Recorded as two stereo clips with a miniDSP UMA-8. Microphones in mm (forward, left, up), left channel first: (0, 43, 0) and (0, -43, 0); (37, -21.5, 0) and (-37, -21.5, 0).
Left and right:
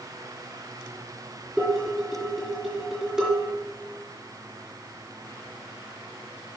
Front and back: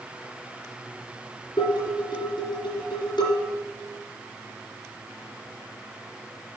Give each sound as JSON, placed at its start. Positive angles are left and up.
{"t": 1.6, "sound": "dishes clattering", "azimuth_deg": -10, "distance_m": 3.5}